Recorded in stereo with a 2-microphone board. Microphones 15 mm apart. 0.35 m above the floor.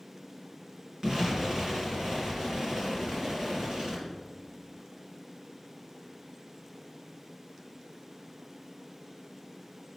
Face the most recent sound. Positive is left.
turn(degrees=-60)  # may be behind; listen again after turning